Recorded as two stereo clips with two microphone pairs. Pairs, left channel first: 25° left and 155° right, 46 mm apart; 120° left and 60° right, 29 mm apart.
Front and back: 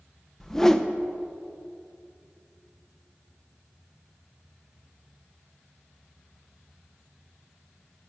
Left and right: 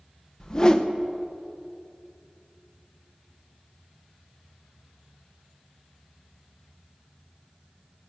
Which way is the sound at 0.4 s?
90° left.